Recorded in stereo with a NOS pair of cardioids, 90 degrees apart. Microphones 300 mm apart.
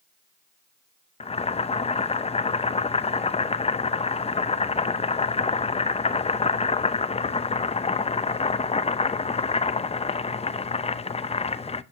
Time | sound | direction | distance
1.2 | boiling | 20° left | 0.8 m